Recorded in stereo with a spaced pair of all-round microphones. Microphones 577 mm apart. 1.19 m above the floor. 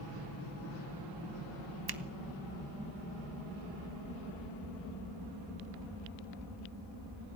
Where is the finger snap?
40° right (ahead or behind), 1.0 m.